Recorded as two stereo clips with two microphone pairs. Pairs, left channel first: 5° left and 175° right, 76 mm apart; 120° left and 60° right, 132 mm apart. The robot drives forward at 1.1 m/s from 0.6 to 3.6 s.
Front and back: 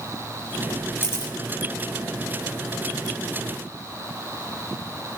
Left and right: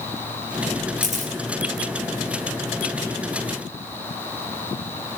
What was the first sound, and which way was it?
A camera shutter, 45° right.